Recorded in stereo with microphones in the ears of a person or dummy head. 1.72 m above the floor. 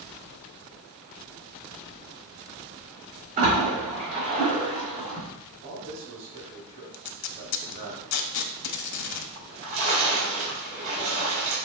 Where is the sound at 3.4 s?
45° right (ahead or behind), 2 m.